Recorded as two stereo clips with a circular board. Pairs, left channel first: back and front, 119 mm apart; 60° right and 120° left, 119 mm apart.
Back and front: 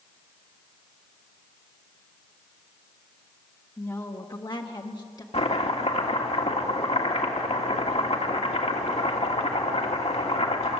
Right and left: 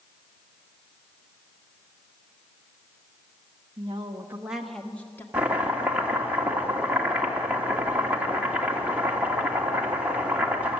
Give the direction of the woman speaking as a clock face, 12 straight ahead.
8 o'clock.